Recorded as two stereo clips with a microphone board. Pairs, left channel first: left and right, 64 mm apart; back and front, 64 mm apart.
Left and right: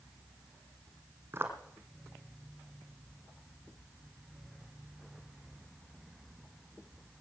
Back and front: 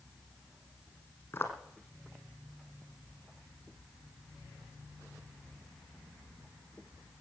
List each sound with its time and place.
1.3 s footsteps: 130° right, 1.9 m